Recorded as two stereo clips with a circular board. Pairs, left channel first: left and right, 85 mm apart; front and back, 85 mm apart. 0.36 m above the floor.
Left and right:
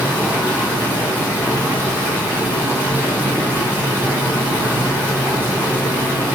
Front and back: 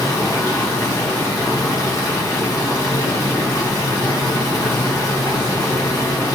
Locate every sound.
0.0 s running water: 35° right, 1.6 m